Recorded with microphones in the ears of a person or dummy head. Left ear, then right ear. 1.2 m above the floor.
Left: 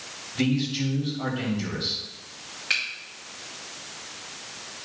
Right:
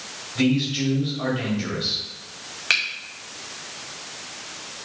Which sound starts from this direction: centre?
A man speaking, at 0.3 s.